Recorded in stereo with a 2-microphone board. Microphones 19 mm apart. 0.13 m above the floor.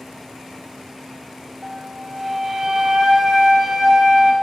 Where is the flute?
35° right (ahead or behind), 1.7 m.